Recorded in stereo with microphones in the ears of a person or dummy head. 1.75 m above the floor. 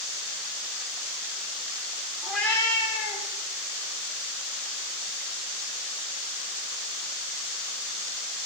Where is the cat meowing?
5° right (ahead or behind), 1.3 m; by 3.3 s 50° left (ahead or behind), 1.8 m.